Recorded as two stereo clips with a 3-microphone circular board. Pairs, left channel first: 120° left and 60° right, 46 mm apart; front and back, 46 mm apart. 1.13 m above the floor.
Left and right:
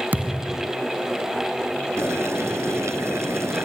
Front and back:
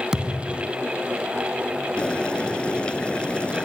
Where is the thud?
105° right.